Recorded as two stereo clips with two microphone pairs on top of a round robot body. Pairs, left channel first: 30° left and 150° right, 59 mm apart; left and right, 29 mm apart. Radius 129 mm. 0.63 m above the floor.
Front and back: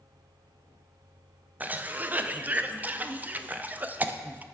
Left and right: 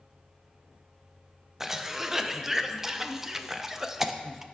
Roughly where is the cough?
Behind.